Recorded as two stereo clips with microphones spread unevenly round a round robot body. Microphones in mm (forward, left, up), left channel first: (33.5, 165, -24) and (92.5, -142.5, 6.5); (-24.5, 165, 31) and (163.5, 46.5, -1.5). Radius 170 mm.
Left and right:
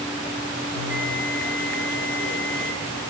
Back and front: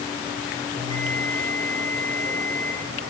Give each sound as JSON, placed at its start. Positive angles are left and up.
{"t": 0.8, "sound": "a bell", "azimuth_deg": -105, "distance_m": 6.0}